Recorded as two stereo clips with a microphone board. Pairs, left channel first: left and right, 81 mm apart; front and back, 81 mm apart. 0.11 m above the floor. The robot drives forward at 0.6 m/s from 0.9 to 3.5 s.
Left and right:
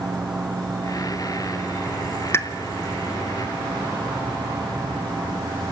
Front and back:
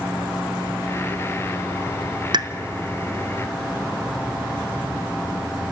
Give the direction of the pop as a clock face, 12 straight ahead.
7 o'clock.